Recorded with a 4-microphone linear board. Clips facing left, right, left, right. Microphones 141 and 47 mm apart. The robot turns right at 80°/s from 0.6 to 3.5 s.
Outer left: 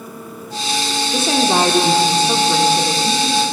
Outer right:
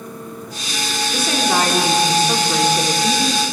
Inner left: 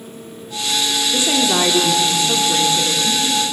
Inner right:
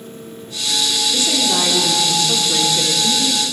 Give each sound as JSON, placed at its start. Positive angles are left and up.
{"t": 1.1, "sound": "a woman speaking", "side_deg": 20, "distance_m": 0.9}